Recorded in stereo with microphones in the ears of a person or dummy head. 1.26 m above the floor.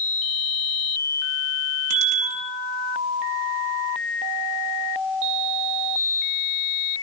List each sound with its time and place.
1.9 s a bicycle bell: 40° right (ahead or behind), 9.5 m